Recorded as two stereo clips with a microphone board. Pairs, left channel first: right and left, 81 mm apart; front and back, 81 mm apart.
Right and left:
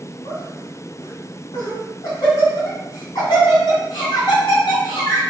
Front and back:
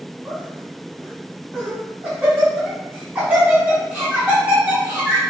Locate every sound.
0.2 s laughter: 110° right, 1.6 m